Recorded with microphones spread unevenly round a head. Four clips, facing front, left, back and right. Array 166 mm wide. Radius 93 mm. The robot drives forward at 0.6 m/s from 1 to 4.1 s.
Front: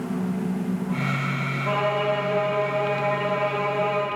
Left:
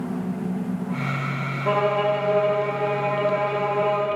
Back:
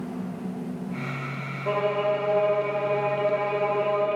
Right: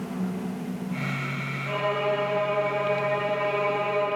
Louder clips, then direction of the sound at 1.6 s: Left 5 dB, even; 85° left.